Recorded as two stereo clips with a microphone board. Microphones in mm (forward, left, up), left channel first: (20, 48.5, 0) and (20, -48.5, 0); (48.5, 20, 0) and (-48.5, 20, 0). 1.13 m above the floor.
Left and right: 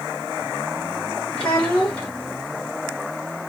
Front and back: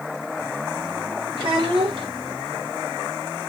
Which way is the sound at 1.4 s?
135° left.